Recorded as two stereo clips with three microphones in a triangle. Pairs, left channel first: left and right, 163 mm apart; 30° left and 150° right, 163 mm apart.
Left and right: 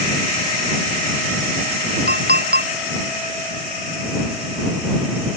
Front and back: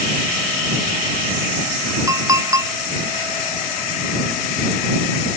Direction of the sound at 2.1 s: 80° right.